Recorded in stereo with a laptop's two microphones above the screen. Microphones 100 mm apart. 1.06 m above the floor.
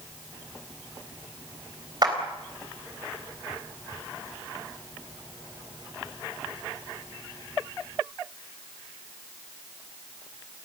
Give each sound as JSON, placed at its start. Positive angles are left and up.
{"t": 2.0, "sound": "a clap", "side_deg": -45, "distance_m": 3.5}